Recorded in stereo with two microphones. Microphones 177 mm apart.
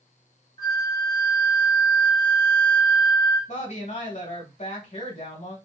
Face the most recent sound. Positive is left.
turn(degrees=50)  # may be behind; listen again after turning